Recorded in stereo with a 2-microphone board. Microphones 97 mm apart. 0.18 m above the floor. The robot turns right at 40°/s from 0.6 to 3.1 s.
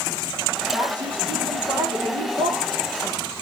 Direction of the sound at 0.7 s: 140° right.